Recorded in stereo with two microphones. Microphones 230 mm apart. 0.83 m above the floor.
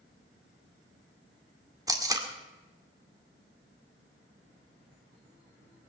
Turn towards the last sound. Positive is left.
turn(degrees=-15)  # may be behind; listen again after turning